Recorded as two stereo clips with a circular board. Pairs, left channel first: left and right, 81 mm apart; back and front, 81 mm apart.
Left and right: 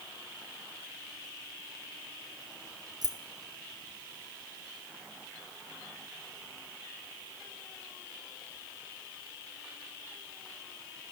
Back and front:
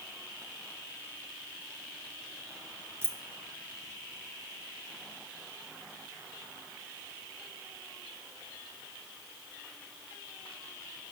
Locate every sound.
3.0 s keys jangling: 55° right, 0.7 m